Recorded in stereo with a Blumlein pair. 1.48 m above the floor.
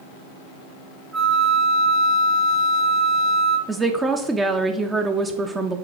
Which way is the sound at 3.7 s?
15° right.